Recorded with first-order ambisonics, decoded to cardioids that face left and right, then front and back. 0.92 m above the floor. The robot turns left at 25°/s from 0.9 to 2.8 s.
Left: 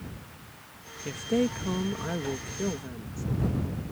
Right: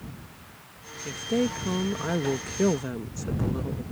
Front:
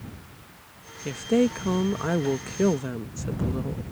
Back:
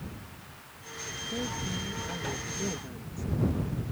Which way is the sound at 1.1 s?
10° left.